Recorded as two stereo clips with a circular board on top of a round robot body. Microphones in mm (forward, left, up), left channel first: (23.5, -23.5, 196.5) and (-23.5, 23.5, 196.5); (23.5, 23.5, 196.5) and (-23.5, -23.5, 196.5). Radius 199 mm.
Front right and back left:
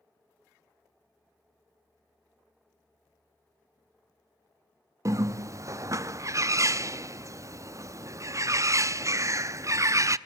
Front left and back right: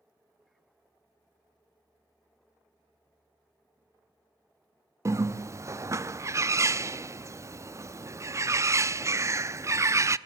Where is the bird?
Straight behind, 0.7 m.